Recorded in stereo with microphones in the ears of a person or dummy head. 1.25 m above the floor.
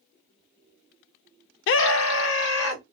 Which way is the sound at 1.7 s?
75° left (ahead or behind).